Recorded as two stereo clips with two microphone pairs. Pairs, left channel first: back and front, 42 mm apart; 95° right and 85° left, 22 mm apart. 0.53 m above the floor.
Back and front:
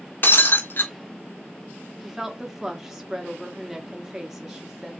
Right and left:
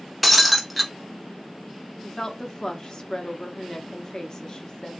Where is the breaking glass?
Straight behind, 0.6 m.